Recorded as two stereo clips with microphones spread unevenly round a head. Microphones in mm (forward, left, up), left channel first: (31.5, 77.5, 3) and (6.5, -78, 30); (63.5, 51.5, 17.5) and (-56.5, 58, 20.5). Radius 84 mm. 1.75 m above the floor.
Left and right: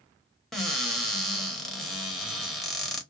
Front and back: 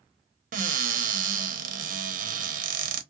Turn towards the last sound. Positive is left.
turn(degrees=170)